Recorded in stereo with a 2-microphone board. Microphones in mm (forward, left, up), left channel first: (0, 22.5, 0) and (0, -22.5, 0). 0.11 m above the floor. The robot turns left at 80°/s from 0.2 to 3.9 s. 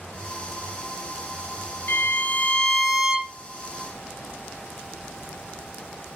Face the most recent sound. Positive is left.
turn(degrees=-80)